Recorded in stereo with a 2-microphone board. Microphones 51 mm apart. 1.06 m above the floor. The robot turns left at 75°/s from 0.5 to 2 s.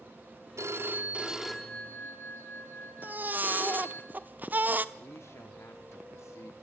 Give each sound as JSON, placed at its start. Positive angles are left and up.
{"t": 0.6, "sound": "a phone ringing", "azimuth_deg": -110, "distance_m": 2.0}
{"t": 3.0, "sound": "a baby crying", "side_deg": -35, "distance_m": 0.8}
{"t": 5.0, "sound": "a man speaking", "side_deg": 65, "distance_m": 1.8}